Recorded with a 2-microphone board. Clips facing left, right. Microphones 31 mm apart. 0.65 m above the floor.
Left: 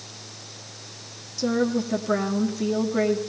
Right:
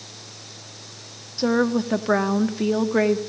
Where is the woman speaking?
40° right (ahead or behind), 1.4 m.